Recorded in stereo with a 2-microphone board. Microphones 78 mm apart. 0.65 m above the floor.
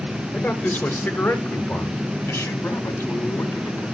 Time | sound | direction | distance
0.3 | a man speaking | 25° left (ahead or behind) | 2 m